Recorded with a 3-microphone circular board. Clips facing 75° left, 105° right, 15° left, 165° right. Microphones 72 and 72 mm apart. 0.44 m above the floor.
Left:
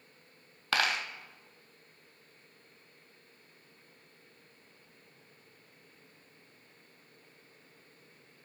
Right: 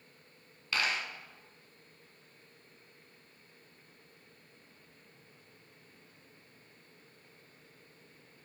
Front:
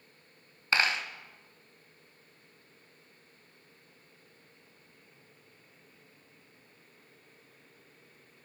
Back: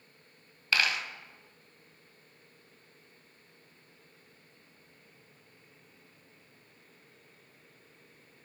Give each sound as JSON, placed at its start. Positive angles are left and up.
{"t": 0.7, "sound": "a dropped coin", "azimuth_deg": 75, "distance_m": 0.5}